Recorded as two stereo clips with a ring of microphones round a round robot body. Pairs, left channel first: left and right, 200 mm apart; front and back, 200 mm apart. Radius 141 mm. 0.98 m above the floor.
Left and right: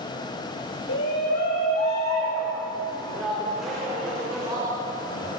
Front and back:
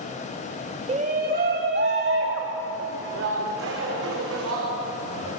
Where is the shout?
125° left, 2.0 m; by 5.3 s 170° right, 5.5 m.